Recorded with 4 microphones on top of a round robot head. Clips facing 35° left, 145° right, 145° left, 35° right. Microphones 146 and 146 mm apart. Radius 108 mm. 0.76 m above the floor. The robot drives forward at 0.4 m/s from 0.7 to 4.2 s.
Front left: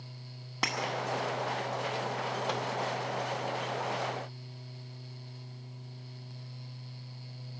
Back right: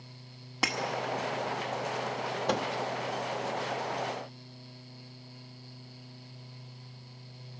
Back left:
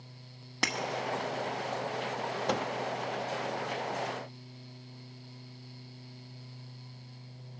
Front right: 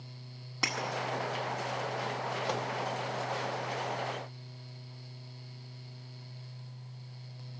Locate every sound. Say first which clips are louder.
0.6 s breaking glass: back right 2 dB, back left 2 dB; 130° left, 0.7 m; by 0.8 s 135° left, 0.7 m
2.5 s a microwave: back right 7 dB, back left 4 dB; 175° left, 0.8 m